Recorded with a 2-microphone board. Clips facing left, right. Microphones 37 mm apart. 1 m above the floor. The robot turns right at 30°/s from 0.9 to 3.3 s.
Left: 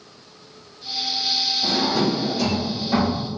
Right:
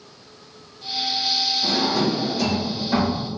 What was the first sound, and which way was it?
A drawer, 25° left (ahead or behind).